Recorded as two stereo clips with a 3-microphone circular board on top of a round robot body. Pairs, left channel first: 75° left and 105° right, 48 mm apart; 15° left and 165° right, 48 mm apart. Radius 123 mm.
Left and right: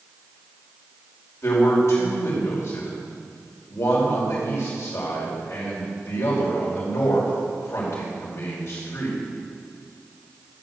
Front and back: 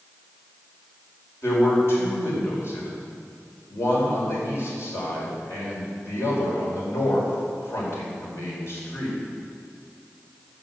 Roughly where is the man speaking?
Ahead left.